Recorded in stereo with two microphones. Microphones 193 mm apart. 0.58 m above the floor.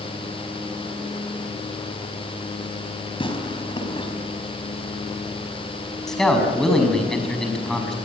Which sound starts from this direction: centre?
A man speaking, at 6.1 s.